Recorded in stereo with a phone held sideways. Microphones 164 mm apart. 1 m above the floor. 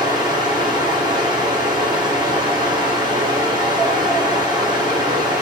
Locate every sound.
0.0 s a fan: 30° right (ahead or behind), 2.5 m